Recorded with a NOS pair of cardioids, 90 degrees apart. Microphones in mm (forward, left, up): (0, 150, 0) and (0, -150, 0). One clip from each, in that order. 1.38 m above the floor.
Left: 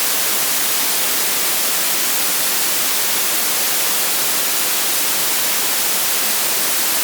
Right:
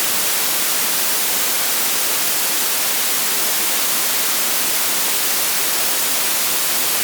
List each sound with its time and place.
Only background noise.